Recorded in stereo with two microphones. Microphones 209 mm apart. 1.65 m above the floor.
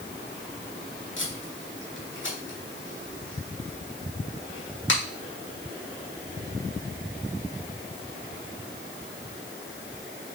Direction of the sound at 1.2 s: 65° left (ahead or behind).